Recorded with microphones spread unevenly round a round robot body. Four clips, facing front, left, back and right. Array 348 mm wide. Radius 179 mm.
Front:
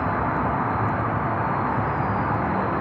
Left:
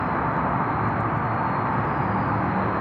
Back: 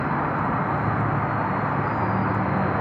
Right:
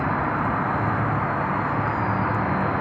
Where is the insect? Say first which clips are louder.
Even, front 1 dB; 25° right, 1.0 m.